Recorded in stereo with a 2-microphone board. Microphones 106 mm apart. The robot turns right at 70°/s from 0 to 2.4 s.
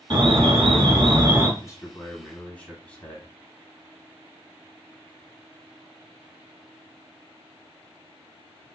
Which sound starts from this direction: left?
A man speaking, at 1.6 s.